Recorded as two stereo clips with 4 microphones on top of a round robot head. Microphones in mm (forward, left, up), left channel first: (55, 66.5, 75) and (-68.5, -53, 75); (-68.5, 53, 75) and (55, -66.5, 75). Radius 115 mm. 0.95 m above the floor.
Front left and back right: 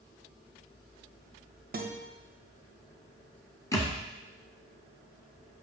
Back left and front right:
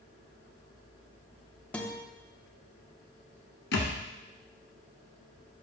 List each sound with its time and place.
1.7 s a guitar: 140° right, 1.4 m
3.7 s a thud: 115° left, 1.4 m